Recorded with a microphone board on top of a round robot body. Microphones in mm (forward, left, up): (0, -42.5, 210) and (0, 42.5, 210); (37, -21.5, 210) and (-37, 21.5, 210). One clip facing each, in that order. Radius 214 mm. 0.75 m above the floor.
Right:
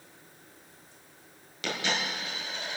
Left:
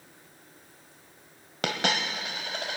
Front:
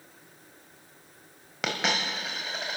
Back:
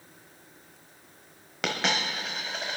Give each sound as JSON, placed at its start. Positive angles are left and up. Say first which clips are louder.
{"t": 1.6, "sound": "a dropped coin", "louder": "left 3 dB, even", "azimuth_deg": 55, "distance_m": 1.3}